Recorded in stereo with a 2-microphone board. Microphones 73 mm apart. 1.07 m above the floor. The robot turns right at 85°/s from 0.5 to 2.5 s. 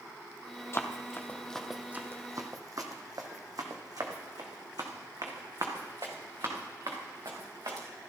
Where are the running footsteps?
40° left (ahead or behind), 1.3 m; by 7.8 s 70° right (ahead or behind), 4 m.